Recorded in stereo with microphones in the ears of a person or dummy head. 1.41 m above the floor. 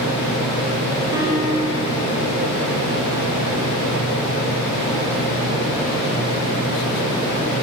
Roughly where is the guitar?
Centre.